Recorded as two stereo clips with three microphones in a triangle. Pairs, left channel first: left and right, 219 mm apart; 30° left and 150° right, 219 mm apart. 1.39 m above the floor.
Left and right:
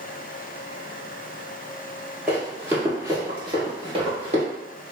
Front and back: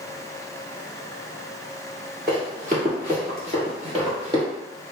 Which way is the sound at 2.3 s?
170° right.